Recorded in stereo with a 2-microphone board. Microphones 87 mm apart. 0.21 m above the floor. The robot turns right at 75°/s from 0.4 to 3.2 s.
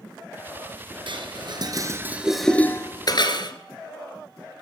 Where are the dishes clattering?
70° right (ahead or behind), 2 m; by 3.5 s 55° left (ahead or behind), 2 m.